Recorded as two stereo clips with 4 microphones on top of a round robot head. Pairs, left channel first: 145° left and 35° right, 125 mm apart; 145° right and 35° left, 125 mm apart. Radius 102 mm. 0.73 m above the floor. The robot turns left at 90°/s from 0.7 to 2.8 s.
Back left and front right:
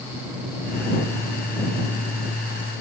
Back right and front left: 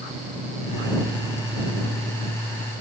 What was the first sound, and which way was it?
Only background noise.